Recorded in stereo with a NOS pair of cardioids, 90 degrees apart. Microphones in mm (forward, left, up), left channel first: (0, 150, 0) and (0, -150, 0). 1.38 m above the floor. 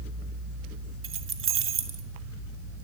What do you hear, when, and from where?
1.0 s keys jangling: 50° right, 1.5 m